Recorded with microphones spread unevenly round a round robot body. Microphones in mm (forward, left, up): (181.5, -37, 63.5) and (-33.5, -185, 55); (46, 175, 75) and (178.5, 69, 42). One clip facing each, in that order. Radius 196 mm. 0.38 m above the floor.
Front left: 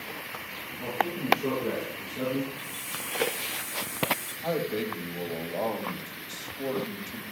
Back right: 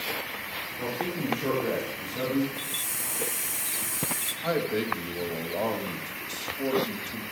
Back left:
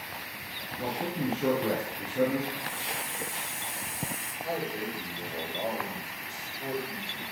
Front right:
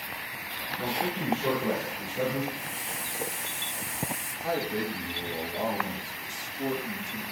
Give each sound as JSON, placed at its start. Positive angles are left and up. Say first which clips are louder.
{"t": 0.8, "sound": "a man speaking", "louder": "back right 1 dB, even", "azimuth_deg": 165, "distance_m": 7.0}
{"t": 2.5, "sound": "a hiss", "louder": "back right 2 dB, back left 2 dB", "azimuth_deg": -165, "distance_m": 3.0}
{"t": 4.4, "sound": "a man speaking", "louder": "back right 2 dB, front right 3 dB", "azimuth_deg": -70, "distance_m": 2.5}